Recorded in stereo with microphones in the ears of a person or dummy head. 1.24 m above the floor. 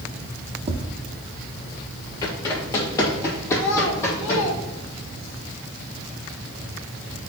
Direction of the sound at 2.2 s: 20° left (ahead or behind).